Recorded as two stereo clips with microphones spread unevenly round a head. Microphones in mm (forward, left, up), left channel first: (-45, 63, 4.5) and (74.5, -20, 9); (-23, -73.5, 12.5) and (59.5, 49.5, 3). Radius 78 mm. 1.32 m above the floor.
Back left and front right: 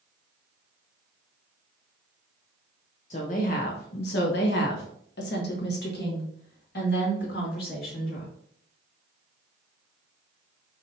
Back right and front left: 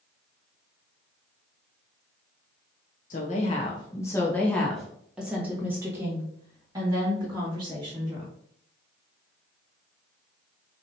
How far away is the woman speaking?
About 0.9 m.